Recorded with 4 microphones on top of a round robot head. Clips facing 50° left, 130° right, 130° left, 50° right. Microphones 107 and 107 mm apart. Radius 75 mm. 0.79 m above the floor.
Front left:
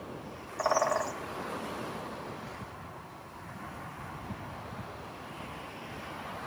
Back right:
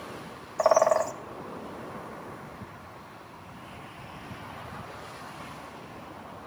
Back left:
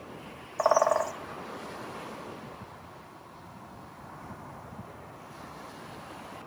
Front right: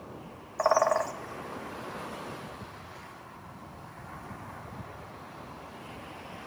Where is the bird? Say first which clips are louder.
Back right 7 dB, back left 1 dB; 155° right, 0.9 m.